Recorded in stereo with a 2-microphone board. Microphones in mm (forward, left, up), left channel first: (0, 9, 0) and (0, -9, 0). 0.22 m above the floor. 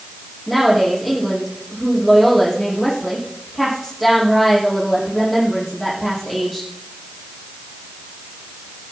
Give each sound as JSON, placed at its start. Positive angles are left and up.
{"t": 0.5, "sound": "a woman speaking", "side_deg": 0, "distance_m": 7.0}